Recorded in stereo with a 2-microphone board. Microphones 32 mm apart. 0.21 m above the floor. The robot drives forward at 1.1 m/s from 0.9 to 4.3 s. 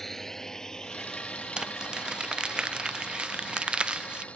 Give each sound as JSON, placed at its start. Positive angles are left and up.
{"t": 0.0, "sound": "a drone", "side_deg": 5}
{"t": 1.6, "sound": "crumpling", "side_deg": -30}